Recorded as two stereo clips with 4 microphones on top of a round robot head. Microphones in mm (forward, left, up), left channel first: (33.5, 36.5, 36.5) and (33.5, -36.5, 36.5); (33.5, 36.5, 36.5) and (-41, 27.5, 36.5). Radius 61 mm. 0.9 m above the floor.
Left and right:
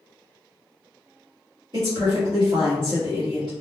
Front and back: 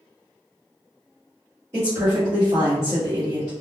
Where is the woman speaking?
120° right, 1.0 m.